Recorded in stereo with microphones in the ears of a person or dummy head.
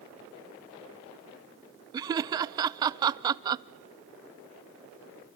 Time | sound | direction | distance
1.9 | laughter | 25° right (ahead or behind) | 0.5 m